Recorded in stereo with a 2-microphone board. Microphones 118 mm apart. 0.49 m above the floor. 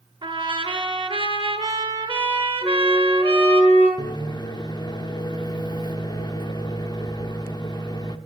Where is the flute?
45° left (ahead or behind), 5.5 m.